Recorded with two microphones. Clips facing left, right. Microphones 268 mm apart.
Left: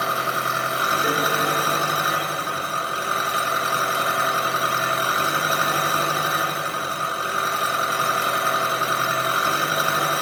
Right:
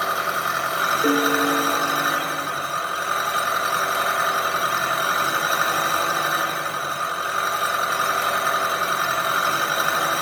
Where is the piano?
45° right (ahead or behind), 0.8 m.